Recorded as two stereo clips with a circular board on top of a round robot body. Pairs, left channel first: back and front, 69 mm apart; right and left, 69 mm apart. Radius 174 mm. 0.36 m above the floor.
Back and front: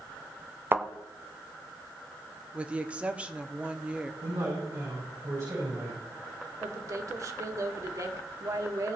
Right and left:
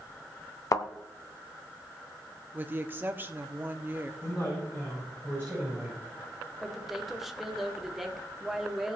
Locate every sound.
0.7 s a thud: 60° right, 1.0 m
2.5 s a woman speaking: 60° left, 1.3 m
4.2 s a man speaking: 25° right, 6.5 m
6.6 s a woman speaking: 5° left, 1.7 m